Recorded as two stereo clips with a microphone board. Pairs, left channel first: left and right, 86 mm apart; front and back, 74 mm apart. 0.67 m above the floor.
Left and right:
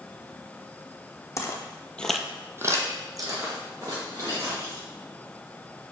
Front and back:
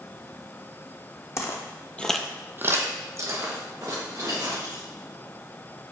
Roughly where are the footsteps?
Ahead left.